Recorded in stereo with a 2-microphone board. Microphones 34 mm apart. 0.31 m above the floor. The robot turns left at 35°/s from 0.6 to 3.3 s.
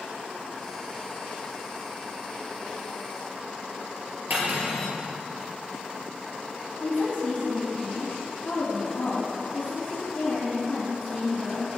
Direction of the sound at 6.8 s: 45° left (ahead or behind).